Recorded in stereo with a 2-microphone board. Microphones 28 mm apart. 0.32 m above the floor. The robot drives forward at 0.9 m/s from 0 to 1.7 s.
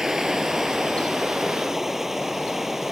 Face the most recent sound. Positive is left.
turn(degrees=-10)  # may be behind; listen again after turning